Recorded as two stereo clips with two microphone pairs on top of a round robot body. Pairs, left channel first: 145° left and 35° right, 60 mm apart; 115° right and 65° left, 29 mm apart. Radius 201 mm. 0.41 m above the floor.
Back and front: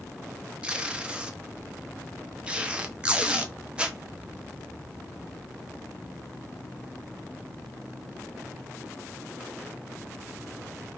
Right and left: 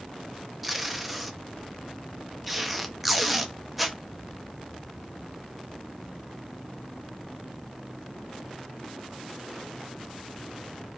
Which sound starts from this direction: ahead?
Tape being pulled, at 0.6 s.